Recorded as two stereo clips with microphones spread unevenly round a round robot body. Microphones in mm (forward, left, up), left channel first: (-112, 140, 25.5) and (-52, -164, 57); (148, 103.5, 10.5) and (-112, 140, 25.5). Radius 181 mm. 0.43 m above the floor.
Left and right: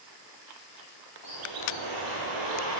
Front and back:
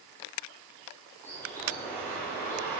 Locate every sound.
1.2 s a bird: 95° right, 2.5 m